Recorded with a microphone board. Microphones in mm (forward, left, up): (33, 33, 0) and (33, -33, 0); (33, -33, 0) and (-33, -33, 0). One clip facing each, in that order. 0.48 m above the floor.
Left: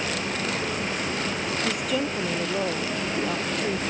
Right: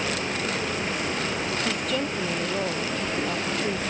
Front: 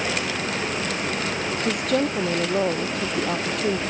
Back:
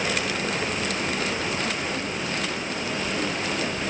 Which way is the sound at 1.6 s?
5° left.